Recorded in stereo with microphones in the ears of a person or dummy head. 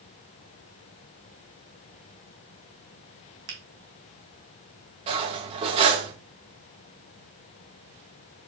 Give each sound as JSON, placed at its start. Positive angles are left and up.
{"t": 3.5, "sound": "a finger snap", "side_deg": -60, "distance_m": 2.0}
{"t": 5.1, "sound": "cutlery clinking", "side_deg": -35, "distance_m": 1.3}